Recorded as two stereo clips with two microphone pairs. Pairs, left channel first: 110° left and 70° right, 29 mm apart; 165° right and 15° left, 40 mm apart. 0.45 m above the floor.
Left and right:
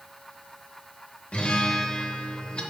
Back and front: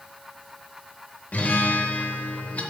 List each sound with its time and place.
1.3 s a guitar: 155° left, 0.8 m